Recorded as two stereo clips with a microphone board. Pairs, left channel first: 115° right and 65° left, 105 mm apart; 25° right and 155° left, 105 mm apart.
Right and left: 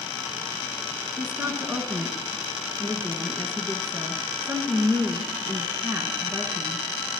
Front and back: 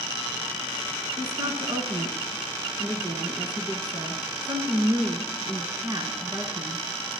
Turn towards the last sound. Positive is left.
turn(degrees=125)